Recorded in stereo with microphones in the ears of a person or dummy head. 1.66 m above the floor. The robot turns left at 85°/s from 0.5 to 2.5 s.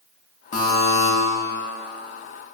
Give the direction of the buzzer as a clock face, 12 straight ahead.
8 o'clock.